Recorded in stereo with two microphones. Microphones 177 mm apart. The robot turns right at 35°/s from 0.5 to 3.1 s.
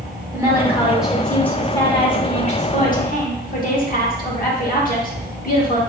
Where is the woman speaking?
20° right, 1.2 m; by 5.8 s 70° left, 1.2 m.